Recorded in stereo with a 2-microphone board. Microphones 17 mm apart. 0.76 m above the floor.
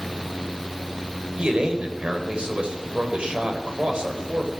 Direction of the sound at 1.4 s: 75° right (ahead or behind).